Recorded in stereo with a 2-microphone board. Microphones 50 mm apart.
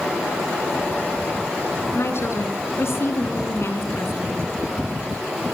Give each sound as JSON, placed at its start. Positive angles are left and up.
{"t": 1.9, "sound": "a woman speaking", "side_deg": 60, "distance_m": 3.0}